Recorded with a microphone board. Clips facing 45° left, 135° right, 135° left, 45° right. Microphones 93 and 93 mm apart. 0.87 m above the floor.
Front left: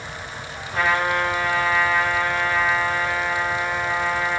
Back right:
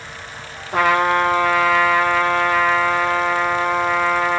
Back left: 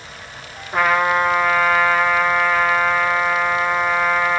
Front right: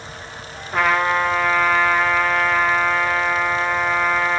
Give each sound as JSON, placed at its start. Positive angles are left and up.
{"t": 0.7, "sound": "a trumpet", "azimuth_deg": -140, "distance_m": 1.4}